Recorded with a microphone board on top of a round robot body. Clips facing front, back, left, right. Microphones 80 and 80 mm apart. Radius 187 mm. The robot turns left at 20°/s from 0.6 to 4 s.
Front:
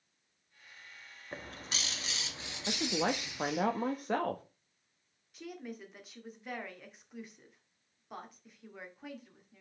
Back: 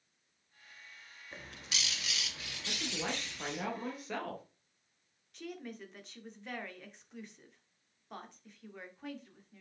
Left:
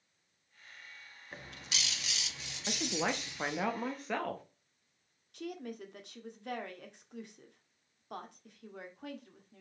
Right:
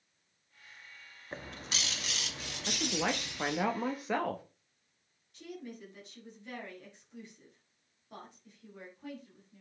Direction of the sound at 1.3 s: 35° right.